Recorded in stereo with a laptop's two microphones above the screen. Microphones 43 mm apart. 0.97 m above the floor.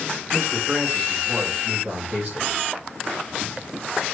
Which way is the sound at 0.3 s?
40° right (ahead or behind).